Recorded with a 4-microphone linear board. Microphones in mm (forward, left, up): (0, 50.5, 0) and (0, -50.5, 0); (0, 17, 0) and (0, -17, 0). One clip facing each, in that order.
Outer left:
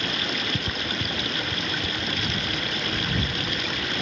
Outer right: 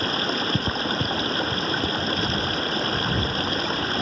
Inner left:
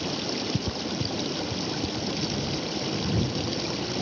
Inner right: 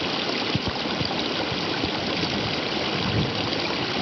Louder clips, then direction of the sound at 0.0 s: Outer right 4 dB, inner right 5 dB; 35° right (ahead or behind).